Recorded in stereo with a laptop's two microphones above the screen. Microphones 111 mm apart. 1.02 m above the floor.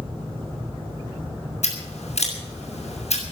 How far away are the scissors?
About 7 m.